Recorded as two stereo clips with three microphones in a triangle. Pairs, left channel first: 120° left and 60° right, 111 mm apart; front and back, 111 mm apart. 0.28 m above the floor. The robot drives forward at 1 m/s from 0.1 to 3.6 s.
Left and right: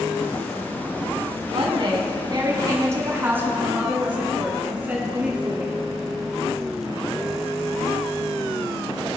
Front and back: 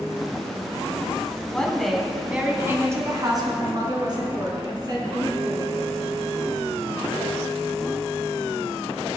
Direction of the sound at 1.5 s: 80° right.